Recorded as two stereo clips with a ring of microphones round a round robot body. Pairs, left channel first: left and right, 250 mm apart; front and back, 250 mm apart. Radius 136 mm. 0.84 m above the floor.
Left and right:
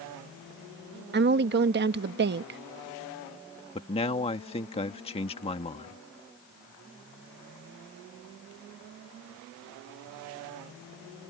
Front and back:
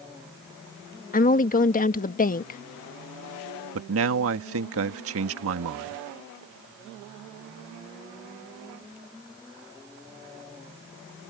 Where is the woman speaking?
50° right.